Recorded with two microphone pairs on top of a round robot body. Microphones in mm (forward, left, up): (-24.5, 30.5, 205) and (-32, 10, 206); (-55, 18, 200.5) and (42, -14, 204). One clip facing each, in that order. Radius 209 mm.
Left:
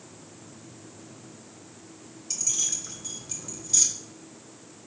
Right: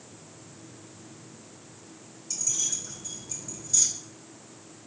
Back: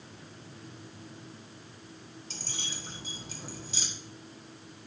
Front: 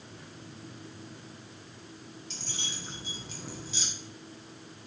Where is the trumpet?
I don't hear a trumpet.